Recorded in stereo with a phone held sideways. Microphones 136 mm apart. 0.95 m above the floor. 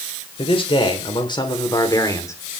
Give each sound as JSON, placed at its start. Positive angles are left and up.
{"t": 0.4, "sound": "a man speaking", "side_deg": 40, "distance_m": 4.0}